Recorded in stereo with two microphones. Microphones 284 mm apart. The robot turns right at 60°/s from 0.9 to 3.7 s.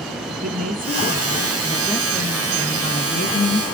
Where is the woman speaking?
70° right, 1.7 m; by 3.6 s 95° left, 1.7 m.